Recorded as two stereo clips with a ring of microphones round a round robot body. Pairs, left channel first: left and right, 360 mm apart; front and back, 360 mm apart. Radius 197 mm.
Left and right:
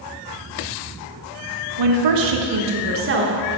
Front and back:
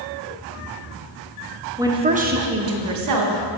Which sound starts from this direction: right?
A woman speaking, at 1.8 s.